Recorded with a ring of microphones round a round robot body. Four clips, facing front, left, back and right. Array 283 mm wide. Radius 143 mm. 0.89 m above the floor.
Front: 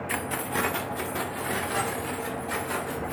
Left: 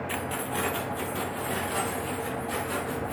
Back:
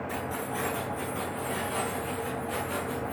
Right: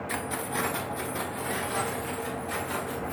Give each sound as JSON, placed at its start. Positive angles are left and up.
{"t": 0.1, "sound": "keys jangling", "azimuth_deg": -10, "distance_m": 0.5}